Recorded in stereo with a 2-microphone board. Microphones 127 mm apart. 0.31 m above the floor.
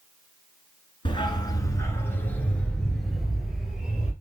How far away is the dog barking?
About 1.5 m.